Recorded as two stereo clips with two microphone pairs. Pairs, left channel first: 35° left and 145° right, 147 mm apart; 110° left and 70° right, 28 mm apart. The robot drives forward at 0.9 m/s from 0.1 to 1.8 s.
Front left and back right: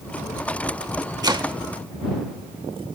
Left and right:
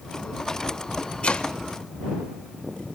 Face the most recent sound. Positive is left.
turn(degrees=165)